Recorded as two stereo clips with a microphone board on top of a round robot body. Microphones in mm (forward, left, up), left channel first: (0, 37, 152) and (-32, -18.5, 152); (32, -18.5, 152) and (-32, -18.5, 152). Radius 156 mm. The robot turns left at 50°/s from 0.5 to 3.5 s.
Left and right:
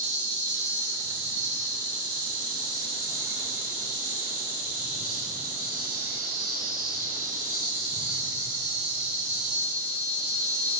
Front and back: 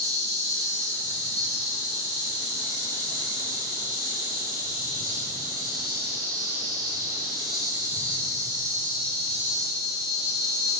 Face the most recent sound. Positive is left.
turn(degrees=165)